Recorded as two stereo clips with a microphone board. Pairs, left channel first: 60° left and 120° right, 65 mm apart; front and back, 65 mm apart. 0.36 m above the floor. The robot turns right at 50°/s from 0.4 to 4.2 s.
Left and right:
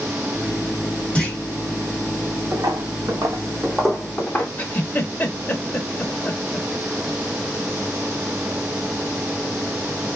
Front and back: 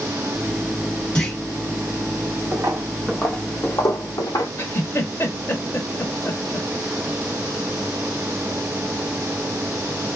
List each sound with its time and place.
1.1 s a clunk: 45° left, 1.0 m; by 1.4 s 55° left, 1.0 m
2.5 s footsteps: 155° right, 0.8 m; by 4.5 s straight ahead, 0.9 m
4.6 s a giggle: 20° left, 0.7 m